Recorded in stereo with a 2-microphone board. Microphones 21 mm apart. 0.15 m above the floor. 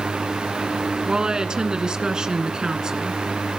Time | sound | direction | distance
1.1 | a woman speaking | 40° right (ahead or behind) | 1.9 m